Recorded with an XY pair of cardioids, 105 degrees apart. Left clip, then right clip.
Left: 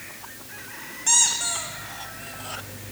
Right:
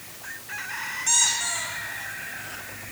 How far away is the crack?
No crack in this recording.